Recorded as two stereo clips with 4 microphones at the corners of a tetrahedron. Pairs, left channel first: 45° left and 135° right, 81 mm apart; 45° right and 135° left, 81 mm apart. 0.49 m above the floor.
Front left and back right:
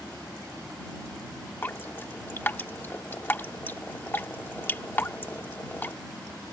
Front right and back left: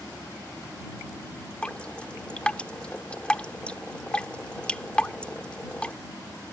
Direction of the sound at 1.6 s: 15° left.